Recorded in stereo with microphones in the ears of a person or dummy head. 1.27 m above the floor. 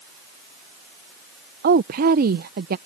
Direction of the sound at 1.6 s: 50° right (ahead or behind).